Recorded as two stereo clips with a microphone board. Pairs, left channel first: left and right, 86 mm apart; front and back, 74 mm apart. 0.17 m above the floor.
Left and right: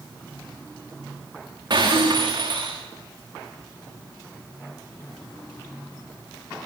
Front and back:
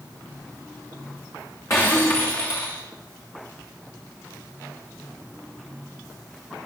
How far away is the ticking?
No ticking in this recording.